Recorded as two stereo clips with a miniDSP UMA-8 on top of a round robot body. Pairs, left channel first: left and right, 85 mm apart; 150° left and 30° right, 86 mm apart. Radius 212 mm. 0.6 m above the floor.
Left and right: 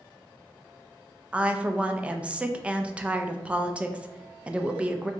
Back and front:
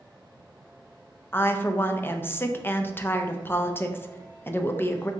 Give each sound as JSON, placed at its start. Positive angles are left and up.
{"t": 1.3, "sound": "a woman speaking", "azimuth_deg": -160, "distance_m": 0.6}